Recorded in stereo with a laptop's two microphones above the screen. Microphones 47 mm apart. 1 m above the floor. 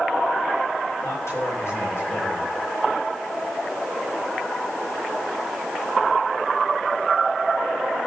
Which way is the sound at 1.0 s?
65° left (ahead or behind).